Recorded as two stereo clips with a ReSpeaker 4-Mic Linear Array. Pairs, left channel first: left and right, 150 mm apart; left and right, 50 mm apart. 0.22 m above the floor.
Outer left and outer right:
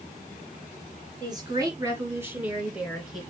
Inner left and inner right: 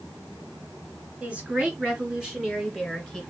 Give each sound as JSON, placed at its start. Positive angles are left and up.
{"t": 1.2, "sound": "a woman speaking", "side_deg": -30, "distance_m": 3.0}